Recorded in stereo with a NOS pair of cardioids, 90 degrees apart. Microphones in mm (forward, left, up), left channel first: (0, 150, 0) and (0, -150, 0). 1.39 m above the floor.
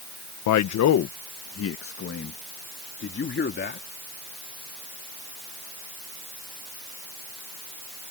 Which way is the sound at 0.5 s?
70° left.